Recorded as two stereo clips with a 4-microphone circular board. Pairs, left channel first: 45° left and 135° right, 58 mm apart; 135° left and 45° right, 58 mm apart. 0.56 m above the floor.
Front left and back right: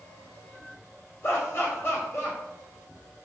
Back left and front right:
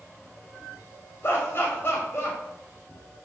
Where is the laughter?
90° left, 3.5 m.